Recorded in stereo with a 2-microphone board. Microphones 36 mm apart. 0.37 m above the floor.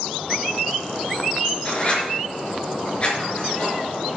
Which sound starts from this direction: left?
Writing, at 1.6 s.